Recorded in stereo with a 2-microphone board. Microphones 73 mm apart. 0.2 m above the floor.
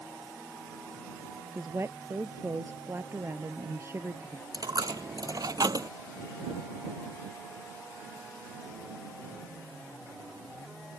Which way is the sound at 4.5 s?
60° right (ahead or behind).